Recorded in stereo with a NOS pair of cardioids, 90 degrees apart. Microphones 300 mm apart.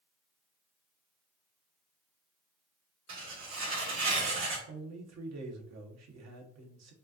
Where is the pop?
I don't hear a pop.